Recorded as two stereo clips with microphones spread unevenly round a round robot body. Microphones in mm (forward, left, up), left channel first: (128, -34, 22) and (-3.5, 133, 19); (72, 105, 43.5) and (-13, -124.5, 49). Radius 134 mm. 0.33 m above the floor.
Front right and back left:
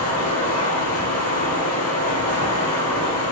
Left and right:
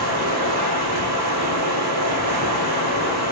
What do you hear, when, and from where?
0.0 s running water: 90° right, 3 m